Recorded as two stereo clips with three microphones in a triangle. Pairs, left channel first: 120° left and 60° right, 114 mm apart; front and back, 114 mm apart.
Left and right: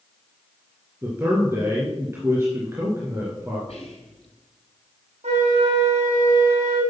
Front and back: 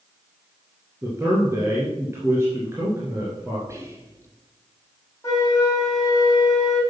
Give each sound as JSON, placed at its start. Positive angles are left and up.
{"t": 1.0, "sound": "a man speaking", "azimuth_deg": -120, "distance_m": 2.5}
{"t": 3.7, "sound": "whispering", "azimuth_deg": 120, "distance_m": 3.5}
{"t": 5.2, "sound": "a flute", "azimuth_deg": -60, "distance_m": 4.0}